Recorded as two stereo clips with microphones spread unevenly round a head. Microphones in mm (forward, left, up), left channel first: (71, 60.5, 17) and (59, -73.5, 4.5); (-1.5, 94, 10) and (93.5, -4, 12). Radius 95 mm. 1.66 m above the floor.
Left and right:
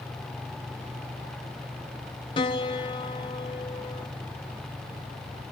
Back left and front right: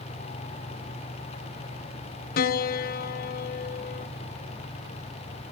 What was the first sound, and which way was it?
A piano, 145° left.